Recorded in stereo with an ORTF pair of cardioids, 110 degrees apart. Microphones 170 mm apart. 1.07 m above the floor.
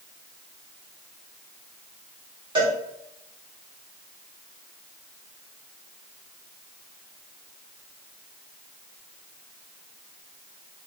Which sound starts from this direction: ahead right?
A cowbell, at 2.5 s.